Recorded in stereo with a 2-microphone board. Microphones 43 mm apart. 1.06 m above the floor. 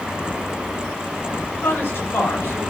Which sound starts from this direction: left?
A woman speaking, at 1.6 s.